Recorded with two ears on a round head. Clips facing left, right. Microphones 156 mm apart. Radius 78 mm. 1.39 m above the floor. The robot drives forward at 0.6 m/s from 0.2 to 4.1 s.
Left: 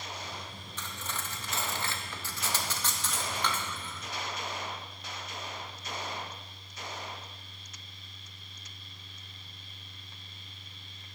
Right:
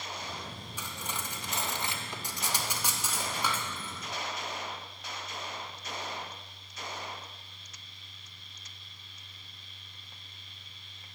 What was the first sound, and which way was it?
Cutlery clinking, 10° right (ahead or behind).